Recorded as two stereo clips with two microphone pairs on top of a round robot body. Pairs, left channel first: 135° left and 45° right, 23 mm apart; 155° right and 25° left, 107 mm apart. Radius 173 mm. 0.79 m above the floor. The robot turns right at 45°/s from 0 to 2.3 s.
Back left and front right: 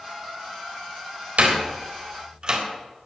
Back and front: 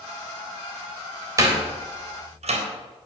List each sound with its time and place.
1.4 s a door slam: 40° right, 3.5 m; by 2.6 s 5° left, 3.5 m